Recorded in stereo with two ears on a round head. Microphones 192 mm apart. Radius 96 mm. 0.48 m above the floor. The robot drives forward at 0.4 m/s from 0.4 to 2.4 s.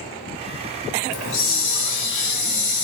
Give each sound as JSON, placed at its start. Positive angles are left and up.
{"t": 1.1, "sound": "a hiss", "side_deg": 70, "distance_m": 1.9}